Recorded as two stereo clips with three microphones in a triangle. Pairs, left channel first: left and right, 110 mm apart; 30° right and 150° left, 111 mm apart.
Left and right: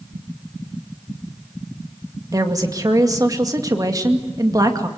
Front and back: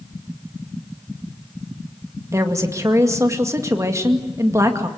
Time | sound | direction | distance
2.3 | a woman speaking | 145° right | 2 m